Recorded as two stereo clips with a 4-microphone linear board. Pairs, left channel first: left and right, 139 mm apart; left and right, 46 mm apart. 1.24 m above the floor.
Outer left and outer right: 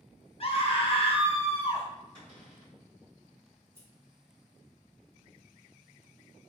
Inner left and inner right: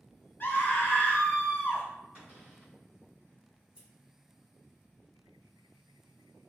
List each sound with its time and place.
0.4 s a scream: 45° left (ahead or behind), 0.7 m
2.1 s a cupboard door: 35° right (ahead or behind), 1.6 m
3.8 s scissors: 15° right (ahead or behind), 1.0 m